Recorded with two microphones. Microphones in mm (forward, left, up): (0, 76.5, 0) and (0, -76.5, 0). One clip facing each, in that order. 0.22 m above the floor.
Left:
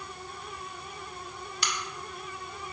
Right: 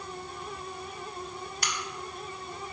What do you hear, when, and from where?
1.6 s a crack: 50° right (ahead or behind), 0.8 m